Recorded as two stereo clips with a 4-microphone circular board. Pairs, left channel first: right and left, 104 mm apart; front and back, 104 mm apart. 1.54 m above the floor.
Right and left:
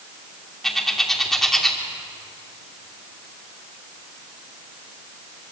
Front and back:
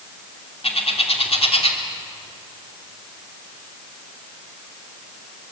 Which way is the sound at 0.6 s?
5° right.